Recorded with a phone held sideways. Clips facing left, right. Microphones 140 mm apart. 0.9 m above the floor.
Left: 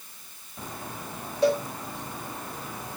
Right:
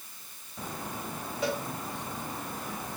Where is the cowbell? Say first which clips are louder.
Left 9 dB; 35° left (ahead or behind), 4.5 m.